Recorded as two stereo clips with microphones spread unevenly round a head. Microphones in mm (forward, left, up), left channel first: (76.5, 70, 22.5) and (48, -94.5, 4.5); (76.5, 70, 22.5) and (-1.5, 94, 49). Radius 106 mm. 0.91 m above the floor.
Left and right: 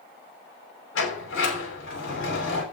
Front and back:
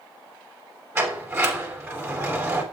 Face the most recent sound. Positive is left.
turn(degrees=100)